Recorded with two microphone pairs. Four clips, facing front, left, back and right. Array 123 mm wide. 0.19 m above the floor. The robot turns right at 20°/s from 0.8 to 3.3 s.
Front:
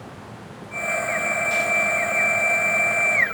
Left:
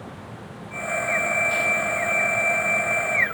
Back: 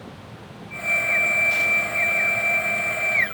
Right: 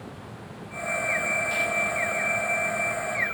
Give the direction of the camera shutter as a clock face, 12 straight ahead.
I don't hear a camera shutter.